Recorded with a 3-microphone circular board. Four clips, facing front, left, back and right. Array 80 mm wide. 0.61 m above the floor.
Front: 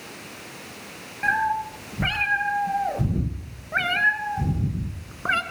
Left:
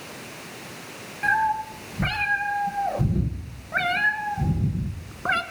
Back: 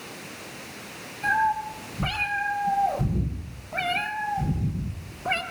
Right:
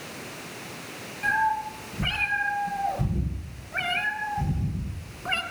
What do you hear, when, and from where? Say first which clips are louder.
1.2 s a cat meowing: left 2 dB, even; 30° left, 6 m; by 5.4 s 40° left, 3.5 m